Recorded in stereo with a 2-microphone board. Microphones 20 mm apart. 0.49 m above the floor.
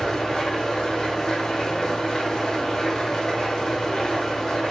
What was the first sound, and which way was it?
An engine running, 30° left (ahead or behind).